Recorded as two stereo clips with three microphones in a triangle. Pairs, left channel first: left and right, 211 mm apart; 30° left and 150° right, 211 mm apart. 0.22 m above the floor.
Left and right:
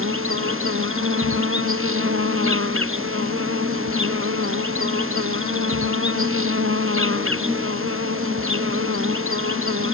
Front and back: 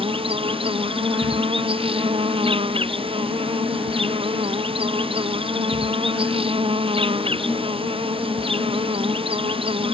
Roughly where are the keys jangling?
I don't hear keys jangling.